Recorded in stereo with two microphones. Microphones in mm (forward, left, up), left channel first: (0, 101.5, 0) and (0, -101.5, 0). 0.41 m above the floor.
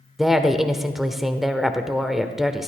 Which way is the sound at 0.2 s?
Centre (ahead or behind).